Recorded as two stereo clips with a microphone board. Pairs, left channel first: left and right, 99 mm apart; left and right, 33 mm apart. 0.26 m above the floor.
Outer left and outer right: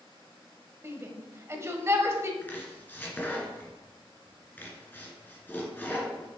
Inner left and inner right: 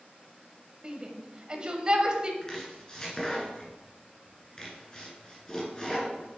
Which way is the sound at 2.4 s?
20° left (ahead or behind).